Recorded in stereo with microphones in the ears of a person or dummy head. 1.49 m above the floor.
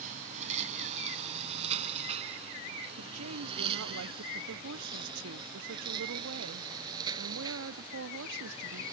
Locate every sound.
0.0 s a lawn mower: 45° right (ahead or behind); by 8.9 s 20° right (ahead or behind)
3.0 s a woman speaking: 75° right (ahead or behind)